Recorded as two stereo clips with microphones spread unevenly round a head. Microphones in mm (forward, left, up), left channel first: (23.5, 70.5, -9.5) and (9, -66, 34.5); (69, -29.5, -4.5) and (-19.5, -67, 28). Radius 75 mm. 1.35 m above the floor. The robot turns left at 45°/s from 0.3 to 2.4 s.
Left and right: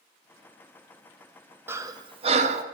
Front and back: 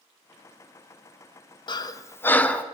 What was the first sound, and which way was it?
Breathing, 25° right.